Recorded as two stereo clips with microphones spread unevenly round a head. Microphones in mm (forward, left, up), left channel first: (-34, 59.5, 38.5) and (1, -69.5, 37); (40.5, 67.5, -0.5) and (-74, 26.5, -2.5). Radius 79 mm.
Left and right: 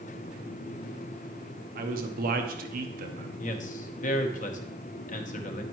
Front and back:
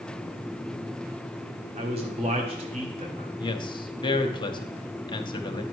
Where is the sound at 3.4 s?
70° left, 0.9 m.